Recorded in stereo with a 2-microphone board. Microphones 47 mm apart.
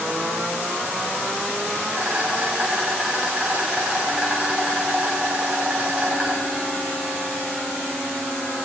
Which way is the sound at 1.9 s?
25° right (ahead or behind).